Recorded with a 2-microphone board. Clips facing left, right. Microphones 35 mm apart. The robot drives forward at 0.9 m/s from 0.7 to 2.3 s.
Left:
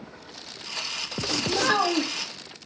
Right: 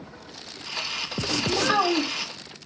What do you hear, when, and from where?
1.5 s a child speaking: 70° left (ahead or behind), 1.9 m; by 2.3 s 50° left (ahead or behind), 2 m